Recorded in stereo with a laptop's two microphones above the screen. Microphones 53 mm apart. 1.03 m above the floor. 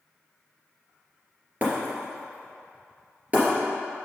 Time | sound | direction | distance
1.6 | breaking glass | 35° right (ahead or behind) | 2.5 m